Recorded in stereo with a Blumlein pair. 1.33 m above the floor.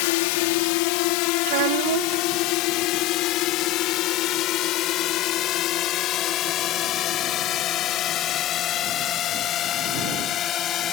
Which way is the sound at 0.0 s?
50° left.